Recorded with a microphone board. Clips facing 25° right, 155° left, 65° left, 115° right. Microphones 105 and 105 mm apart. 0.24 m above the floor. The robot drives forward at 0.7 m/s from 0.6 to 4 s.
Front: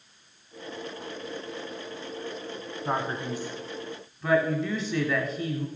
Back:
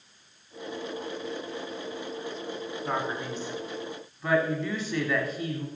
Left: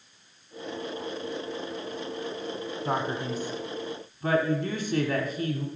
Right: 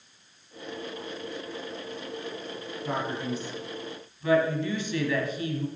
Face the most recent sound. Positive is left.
turn(degrees=70)